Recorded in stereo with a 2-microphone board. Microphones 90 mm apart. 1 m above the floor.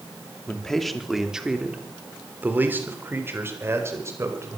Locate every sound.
0.5 s a man speaking: 10° left (ahead or behind), 2.5 m; by 4.6 s 30° right (ahead or behind), 5 m